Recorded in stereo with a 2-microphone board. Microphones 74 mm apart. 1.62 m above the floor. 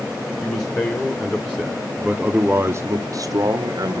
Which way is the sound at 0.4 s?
30° left (ahead or behind).